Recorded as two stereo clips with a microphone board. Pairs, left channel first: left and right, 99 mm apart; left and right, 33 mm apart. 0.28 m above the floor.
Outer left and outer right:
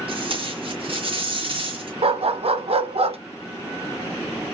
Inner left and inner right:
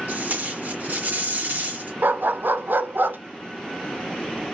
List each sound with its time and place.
0.1 s tape being pulled: 65° right (ahead or behind), 3 m
2.0 s a dog barking: 80° right, 0.6 m